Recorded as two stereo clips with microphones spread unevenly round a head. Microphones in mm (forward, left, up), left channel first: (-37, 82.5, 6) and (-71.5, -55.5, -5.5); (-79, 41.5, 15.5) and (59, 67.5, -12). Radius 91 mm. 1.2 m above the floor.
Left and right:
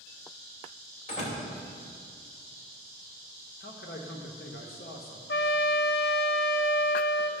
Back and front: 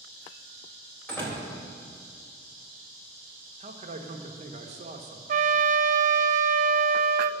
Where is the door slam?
115° left, 3.5 m.